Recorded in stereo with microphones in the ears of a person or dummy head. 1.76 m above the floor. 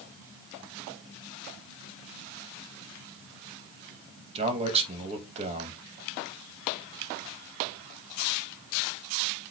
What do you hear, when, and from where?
4.3 s a man speaking: 35° right (ahead or behind), 2.5 m